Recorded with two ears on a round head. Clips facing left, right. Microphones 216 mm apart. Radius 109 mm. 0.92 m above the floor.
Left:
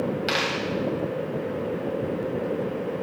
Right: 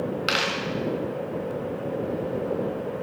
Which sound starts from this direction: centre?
A dropped coin, at 0.3 s.